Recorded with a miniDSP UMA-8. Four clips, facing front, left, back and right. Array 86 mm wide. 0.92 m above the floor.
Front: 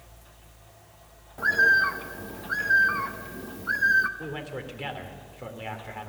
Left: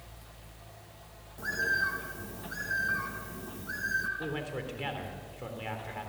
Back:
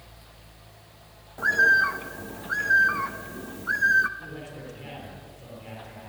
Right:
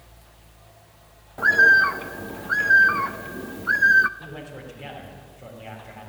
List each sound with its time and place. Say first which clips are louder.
1.4 s a bird: right 15 dB, back 1 dB; 95° right, 0.6 m
4.2 s a man speaking: left 2 dB, front 4 dB; 35° left, 3.5 m